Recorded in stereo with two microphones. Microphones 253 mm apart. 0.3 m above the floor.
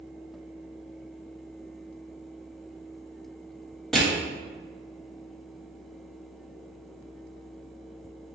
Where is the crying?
No crying in this recording.